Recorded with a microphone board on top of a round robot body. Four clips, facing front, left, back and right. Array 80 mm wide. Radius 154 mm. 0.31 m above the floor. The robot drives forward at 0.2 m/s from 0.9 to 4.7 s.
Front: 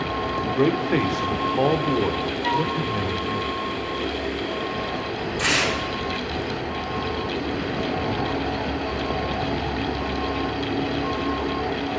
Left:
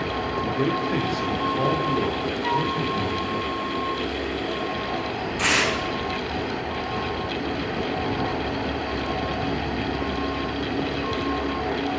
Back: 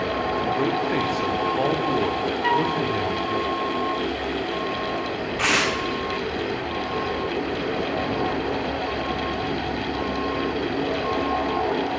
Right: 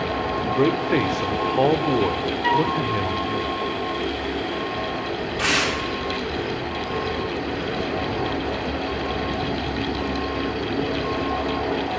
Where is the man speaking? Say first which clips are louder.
Right 5 dB, front 2 dB; 70° right, 1.2 m; by 3.4 s 120° right, 1.2 m.